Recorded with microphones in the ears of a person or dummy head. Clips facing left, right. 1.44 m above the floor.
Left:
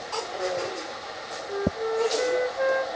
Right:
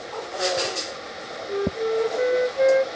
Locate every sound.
1.5 s a flute: 35° right (ahead or behind), 0.5 m